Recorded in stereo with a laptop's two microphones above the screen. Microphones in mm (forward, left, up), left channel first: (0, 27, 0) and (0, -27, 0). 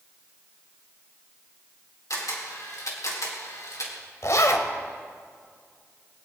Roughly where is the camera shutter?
Left.